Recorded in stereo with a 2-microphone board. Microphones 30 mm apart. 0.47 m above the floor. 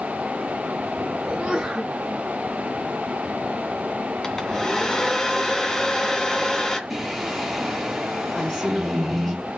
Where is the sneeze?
20° right (ahead or behind), 3.5 m.